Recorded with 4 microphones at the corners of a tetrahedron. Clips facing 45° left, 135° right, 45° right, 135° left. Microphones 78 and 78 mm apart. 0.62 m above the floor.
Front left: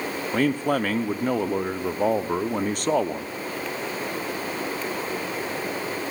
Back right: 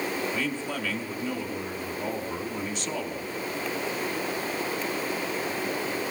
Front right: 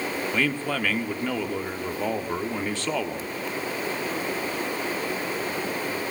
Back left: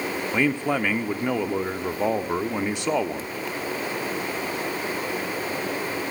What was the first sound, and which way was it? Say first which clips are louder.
A man speaking: front left 8 dB, back left 5 dB; 65° left.